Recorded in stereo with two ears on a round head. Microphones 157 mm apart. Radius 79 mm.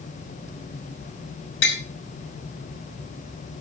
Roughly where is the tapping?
Left.